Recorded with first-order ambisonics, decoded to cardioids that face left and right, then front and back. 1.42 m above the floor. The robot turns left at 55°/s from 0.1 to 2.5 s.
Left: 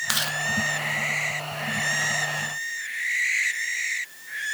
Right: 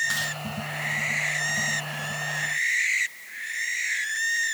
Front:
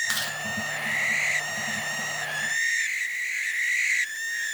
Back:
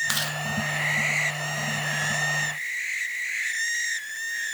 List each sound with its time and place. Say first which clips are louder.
0.1 s chewing: left 2 dB, back 1 dB; 115° left, 1.0 m; by 0.4 s 100° left, 1.0 m